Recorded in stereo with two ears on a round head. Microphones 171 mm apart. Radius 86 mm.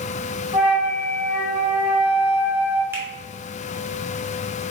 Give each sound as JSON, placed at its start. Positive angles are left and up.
{"t": 0.5, "sound": "a flute", "side_deg": -20, "distance_m": 1.5}
{"t": 2.9, "sound": "a finger snap", "side_deg": -10, "distance_m": 0.8}